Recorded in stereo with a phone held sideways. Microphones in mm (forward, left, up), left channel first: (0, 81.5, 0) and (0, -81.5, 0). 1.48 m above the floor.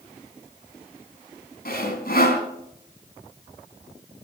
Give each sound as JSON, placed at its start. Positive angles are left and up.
{"t": 1.6, "sound": "sawing", "side_deg": 65, "distance_m": 3.0}